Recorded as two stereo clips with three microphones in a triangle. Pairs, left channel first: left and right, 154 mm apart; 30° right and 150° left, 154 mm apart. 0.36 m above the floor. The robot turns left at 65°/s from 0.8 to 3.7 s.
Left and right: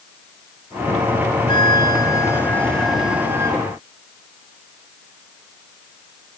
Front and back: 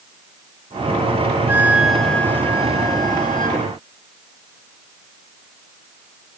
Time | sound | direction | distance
1.5 | a flute | 90° left | 1.1 m